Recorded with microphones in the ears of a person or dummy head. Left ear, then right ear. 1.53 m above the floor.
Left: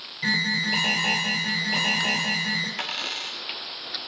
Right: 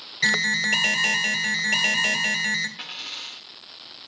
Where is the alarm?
70° right (ahead or behind), 1.6 m.